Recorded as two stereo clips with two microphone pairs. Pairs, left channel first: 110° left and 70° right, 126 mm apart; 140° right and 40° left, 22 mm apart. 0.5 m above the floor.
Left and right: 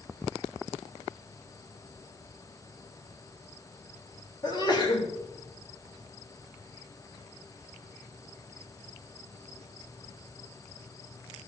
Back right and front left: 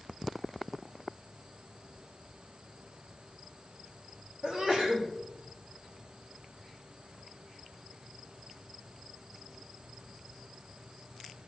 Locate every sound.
4.4 s a sneeze: 75° left, 1.7 m